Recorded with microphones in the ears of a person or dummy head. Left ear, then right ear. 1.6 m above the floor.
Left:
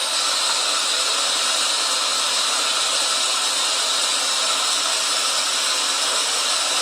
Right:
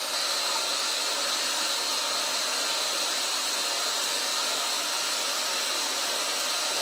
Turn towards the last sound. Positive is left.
turn(degrees=35)  # may be behind; listen again after turning